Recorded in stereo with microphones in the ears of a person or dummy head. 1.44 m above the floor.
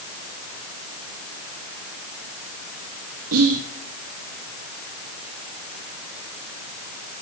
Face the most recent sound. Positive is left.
turn(degrees=-75)  # may be behind; listen again after turning